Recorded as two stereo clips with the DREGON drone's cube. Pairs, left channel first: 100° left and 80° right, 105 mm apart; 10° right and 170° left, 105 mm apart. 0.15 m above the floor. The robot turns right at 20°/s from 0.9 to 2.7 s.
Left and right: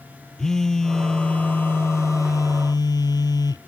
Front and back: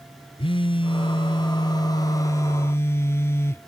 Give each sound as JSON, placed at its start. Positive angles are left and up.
{"t": 0.4, "sound": "a phone buzzing", "azimuth_deg": 15}